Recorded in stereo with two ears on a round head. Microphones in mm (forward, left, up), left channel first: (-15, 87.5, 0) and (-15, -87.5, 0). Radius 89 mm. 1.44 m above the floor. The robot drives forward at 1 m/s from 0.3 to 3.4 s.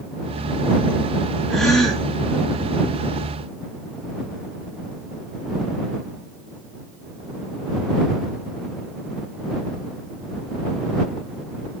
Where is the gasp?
5° left (ahead or behind), 1.7 m; by 2.0 s centre (ahead or behind), 2 m.